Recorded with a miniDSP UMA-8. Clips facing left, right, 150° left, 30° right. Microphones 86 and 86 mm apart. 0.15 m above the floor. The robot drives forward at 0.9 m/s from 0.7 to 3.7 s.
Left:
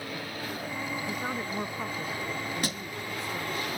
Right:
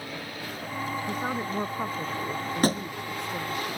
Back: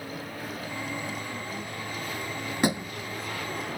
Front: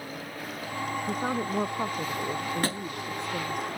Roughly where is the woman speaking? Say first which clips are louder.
Right 3 dB, front 7 dB; ahead.